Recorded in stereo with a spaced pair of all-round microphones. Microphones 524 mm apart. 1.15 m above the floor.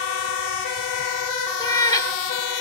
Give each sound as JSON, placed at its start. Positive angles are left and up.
{"t": 1.6, "sound": "a cat meowing", "side_deg": 5, "distance_m": 0.8}